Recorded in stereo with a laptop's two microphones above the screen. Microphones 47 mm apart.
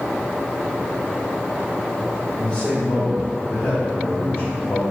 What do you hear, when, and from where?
2.4 s a man speaking: 25° left (ahead or behind), 1.0 m; by 4.8 s 45° left (ahead or behind), 1.2 m